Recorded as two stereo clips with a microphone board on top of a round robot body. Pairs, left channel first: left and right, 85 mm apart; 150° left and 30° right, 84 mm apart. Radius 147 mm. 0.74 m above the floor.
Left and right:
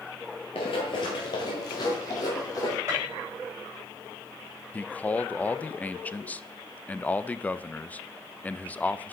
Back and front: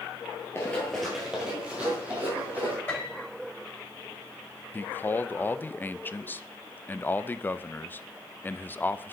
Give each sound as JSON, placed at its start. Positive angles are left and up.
{"t": 0.6, "sound": "running footsteps", "azimuth_deg": 90, "distance_m": 0.8}
{"t": 2.9, "sound": "a piano", "azimuth_deg": -145, "distance_m": 3.5}
{"t": 4.7, "sound": "a man speaking", "azimuth_deg": 130, "distance_m": 0.6}